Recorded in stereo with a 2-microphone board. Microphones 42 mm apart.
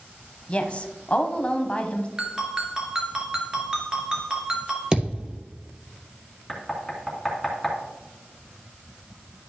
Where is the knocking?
Centre (ahead or behind), 2 m.